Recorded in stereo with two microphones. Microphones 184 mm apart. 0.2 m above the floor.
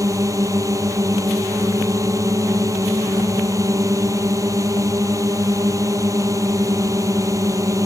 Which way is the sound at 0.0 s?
15° right (ahead or behind).